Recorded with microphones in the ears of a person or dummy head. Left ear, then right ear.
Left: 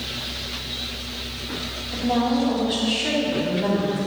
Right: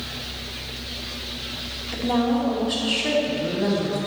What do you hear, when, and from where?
1.9 s a woman speaking: 20° right (ahead or behind), 2.0 m